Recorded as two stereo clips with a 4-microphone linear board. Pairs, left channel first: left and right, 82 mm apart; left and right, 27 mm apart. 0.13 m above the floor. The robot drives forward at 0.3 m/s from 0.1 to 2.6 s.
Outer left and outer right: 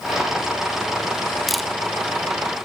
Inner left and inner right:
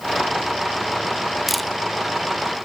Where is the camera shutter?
Centre (ahead or behind), 1.0 m.